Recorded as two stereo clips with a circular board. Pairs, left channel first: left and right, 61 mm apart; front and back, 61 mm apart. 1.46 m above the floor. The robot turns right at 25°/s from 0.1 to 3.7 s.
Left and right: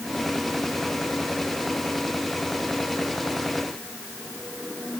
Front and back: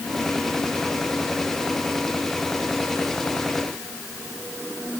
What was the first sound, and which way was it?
Only background noise.